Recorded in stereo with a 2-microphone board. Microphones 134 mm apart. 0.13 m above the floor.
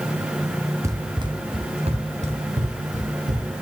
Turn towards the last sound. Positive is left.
turn(degrees=-70)  # may be behind; listen again after turning